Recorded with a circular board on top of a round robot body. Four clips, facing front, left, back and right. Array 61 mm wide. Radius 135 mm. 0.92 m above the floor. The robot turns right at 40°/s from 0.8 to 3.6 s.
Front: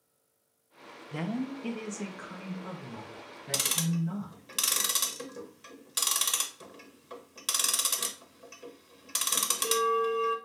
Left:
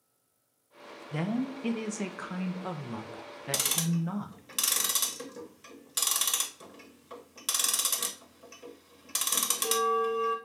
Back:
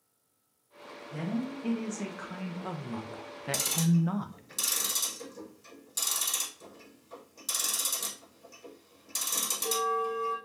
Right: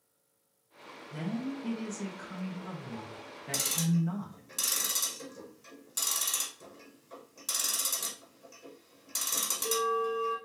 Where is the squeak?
I don't hear a squeak.